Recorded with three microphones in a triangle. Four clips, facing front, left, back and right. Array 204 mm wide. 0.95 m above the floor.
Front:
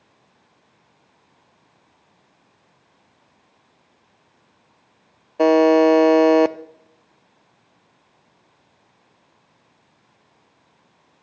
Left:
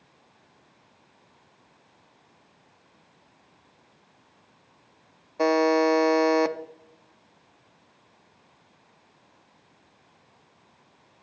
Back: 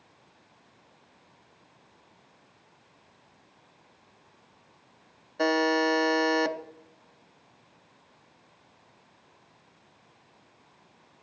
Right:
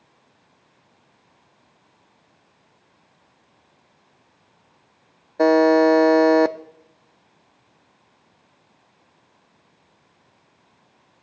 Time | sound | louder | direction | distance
5.4 | a buzzer | right 6 dB, front 12 dB | 45° right | 0.5 m